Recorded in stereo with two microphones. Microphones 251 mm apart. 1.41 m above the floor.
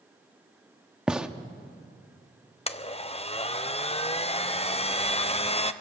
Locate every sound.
1.1 s a gunshot: 5° right (ahead or behind), 1.0 m
2.7 s a blender: 25° left (ahead or behind), 0.7 m